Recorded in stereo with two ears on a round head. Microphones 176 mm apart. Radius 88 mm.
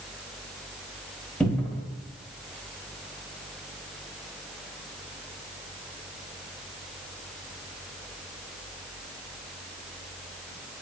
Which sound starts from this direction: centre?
A cupboard door, at 1.4 s.